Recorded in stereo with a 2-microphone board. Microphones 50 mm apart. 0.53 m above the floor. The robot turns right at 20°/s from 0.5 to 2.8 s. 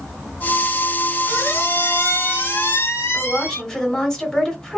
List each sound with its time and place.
1.3 s a squeak: 70° left, 1.5 m; by 3.6 s 100° left, 1.5 m
3.1 s a woman speaking: 15° left (ahead or behind), 1.2 m